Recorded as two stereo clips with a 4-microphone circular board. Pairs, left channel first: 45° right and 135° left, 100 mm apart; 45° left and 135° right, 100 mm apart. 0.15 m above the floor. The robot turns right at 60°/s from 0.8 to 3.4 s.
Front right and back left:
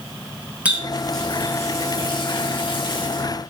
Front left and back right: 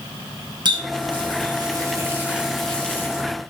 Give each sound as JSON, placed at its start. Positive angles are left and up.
{"t": 0.7, "sound": "a running tap", "azimuth_deg": -150, "distance_m": 1.4}